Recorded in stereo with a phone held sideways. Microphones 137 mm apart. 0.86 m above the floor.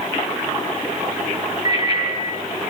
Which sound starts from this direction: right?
A bicycle bell, at 1.6 s.